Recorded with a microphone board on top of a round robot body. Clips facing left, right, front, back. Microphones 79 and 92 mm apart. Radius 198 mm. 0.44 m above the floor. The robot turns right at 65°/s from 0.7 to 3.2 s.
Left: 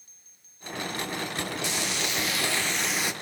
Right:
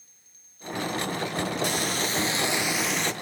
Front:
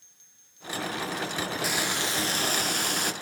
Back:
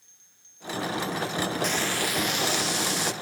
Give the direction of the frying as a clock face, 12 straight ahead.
3 o'clock.